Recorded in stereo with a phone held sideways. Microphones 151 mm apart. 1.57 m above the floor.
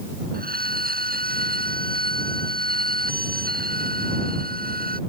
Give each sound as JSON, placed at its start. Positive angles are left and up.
{"t": 0.3, "sound": "a violin", "side_deg": -80}